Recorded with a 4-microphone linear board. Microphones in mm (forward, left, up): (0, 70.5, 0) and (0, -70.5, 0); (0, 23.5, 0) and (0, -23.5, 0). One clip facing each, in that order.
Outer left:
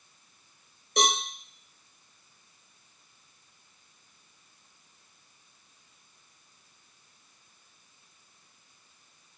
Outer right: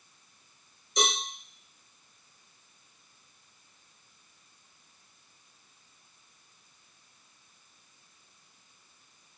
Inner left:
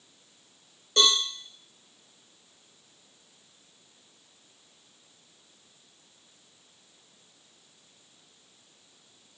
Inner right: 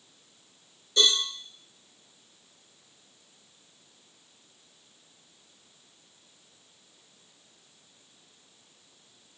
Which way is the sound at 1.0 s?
60° left (ahead or behind).